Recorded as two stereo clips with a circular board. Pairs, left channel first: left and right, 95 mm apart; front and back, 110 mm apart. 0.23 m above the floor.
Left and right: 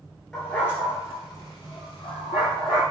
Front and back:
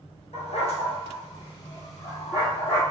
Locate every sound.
0.3 s a dog barking: 10° left, 1.3 m; by 2.8 s 65° left, 3 m